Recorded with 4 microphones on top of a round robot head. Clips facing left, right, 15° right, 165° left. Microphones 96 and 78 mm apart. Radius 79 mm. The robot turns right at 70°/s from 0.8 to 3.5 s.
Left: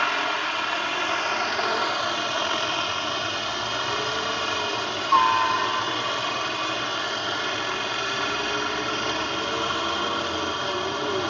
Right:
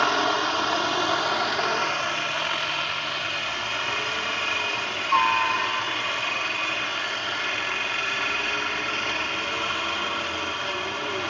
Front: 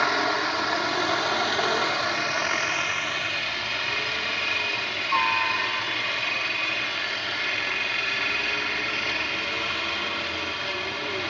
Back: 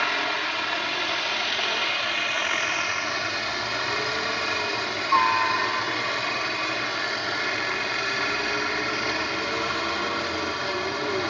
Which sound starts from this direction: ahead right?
A helicopter, at 0.0 s.